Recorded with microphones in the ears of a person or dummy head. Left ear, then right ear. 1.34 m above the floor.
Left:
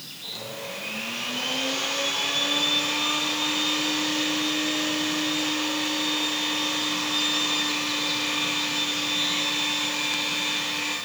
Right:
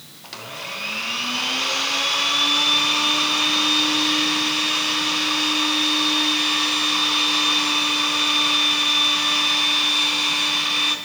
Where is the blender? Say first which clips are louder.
Right 3 dB; 60° right (ahead or behind), 4.5 m.